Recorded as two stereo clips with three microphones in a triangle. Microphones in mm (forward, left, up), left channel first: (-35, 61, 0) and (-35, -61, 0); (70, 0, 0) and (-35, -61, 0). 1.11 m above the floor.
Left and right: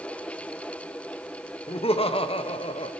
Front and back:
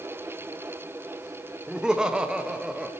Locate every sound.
1.7 s laughter: 125° left, 1.2 m